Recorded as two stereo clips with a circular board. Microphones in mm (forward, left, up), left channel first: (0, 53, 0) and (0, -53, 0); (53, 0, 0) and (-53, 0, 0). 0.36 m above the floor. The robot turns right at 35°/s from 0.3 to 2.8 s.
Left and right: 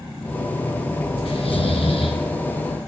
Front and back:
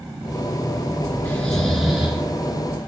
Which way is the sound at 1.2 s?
75° left.